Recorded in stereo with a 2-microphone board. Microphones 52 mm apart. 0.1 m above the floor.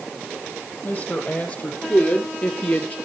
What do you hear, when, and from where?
0.8 s a woman speaking: 40° left (ahead or behind), 3.5 m; by 3.0 s 35° left (ahead or behind), 2.0 m